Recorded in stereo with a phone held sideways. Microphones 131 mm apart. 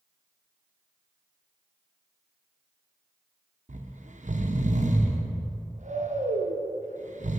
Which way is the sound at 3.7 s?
65° right (ahead or behind).